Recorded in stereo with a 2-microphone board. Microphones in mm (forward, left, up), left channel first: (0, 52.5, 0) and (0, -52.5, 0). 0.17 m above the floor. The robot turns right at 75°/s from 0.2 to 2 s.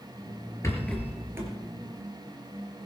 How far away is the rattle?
About 3.5 m.